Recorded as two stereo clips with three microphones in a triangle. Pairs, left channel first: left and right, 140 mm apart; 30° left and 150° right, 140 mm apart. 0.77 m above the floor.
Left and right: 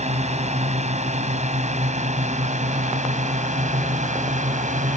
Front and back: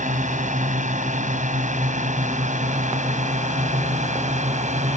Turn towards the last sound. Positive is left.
turn(degrees=-120)